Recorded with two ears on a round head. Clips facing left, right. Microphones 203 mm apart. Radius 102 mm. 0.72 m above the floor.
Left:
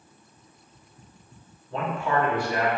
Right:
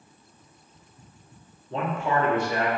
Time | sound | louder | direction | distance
1.7 | a man speaking | even | 25° right (ahead or behind) | 1.0 m